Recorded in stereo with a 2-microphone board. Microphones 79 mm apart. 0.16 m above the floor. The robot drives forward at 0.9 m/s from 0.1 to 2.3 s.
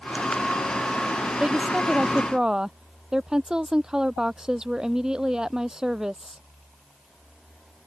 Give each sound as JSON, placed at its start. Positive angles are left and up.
{"t": 1.4, "sound": "a woman speaking", "side_deg": -10}